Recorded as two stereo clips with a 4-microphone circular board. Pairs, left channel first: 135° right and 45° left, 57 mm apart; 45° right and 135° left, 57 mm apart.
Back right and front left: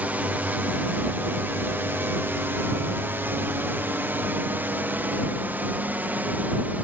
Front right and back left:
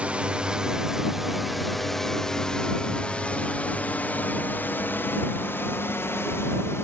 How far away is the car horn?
I don't hear a car horn.